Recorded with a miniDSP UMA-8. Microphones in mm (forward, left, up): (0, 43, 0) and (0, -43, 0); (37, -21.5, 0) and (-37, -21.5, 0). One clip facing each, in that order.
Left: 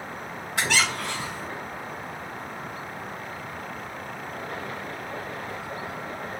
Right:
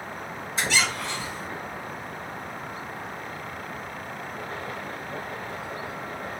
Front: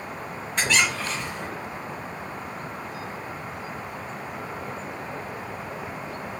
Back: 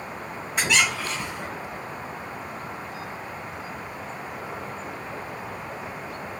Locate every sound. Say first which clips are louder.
0.6 s a squeak: left 1 dB, even; 95° left, 1.2 m